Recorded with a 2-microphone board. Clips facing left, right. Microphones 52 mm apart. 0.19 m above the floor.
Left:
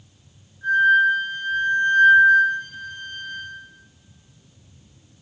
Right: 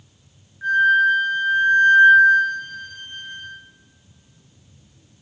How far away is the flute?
About 2.5 m.